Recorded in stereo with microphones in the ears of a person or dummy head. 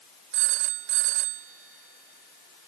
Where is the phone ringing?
55° right (ahead or behind).